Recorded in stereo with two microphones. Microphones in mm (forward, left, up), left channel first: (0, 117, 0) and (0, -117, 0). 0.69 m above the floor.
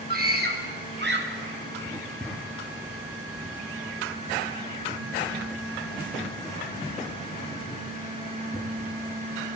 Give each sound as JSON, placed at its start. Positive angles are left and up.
{"t": 0.1, "sound": "a scream", "side_deg": -40, "distance_m": 3.5}
{"t": 1.9, "sound": "writing", "side_deg": 0, "distance_m": 5.0}